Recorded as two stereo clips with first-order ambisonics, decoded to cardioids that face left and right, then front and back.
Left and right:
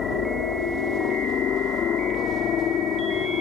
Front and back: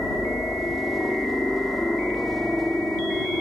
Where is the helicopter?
90° left.